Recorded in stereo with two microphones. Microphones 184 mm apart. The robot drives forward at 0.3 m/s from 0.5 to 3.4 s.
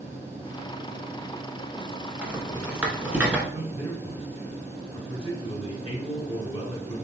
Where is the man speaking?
30° left (ahead or behind), 1.6 m.